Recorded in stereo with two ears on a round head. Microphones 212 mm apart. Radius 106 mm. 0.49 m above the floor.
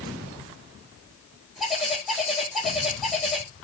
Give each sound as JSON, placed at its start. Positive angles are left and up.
{"t": 1.6, "sound": "a bird", "side_deg": 0, "distance_m": 3.0}